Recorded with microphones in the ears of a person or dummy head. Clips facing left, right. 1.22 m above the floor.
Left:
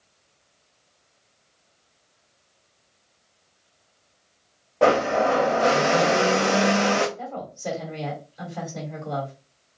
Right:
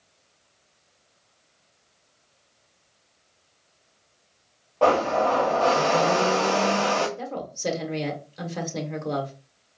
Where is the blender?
30° left (ahead or behind), 0.6 m.